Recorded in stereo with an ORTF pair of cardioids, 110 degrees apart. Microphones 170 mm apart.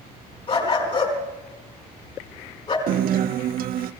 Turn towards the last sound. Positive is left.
turn(degrees=-60)